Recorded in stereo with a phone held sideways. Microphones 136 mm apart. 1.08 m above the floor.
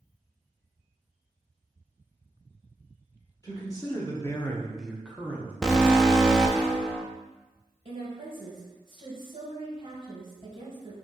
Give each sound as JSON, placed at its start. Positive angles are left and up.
{"t": 3.4, "sound": "a man speaking", "side_deg": 25, "distance_m": 1.0}
{"t": 5.6, "sound": "an alarm", "side_deg": 5, "distance_m": 0.5}
{"t": 7.8, "sound": "a woman speaking", "side_deg": -40, "distance_m": 1.5}